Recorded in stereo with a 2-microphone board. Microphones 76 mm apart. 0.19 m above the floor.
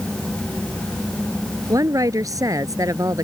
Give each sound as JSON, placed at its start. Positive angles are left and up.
{"t": 1.7, "sound": "a woman speaking", "side_deg": -50}